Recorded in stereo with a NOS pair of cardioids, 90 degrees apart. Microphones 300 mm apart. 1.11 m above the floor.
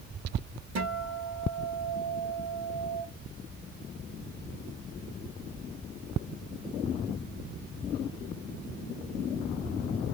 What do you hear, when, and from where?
0.8 s a guitar: 60° right, 1.9 m